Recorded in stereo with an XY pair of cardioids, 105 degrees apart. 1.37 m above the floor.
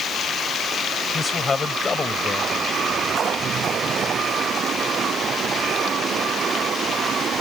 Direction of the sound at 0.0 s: 55° left.